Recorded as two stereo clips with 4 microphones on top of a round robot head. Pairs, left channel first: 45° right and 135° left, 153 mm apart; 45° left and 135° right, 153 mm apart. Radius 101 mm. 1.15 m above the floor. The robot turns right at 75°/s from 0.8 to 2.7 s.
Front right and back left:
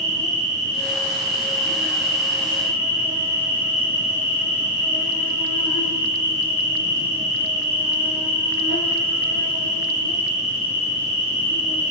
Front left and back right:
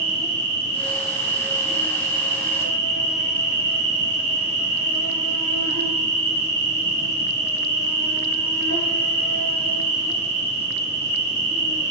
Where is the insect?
165° right, 1.6 m; by 11.9 s 25° right, 1.6 m.